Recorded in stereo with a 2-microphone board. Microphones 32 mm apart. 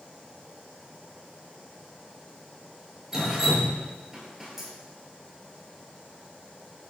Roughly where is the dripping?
Centre.